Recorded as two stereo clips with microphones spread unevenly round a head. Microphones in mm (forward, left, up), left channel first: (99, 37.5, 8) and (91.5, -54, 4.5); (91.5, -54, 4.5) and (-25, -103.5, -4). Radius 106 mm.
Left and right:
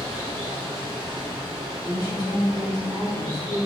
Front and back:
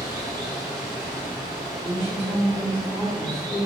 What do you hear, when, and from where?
0.0 s running water: 95° right, 1.7 m
1.8 s a woman speaking: 150° left, 1.4 m